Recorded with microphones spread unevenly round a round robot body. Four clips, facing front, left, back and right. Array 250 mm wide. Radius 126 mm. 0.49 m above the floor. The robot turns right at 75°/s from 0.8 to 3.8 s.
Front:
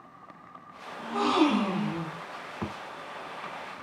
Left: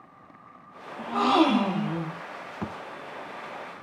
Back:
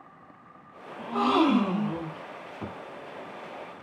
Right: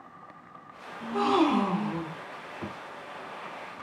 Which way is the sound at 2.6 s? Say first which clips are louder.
Left 4 dB, front 3 dB; 50° left.